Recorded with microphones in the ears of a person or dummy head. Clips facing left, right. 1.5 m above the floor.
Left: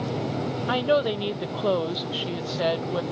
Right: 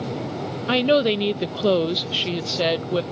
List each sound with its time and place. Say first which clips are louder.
0.7 s a woman speaking: right 5 dB; 40° right (ahead or behind)